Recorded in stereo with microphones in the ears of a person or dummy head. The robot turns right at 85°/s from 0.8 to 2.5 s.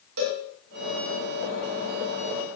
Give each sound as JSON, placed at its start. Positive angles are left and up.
{"t": 0.2, "sound": "a cowbell", "side_deg": -75, "distance_m": 4.0}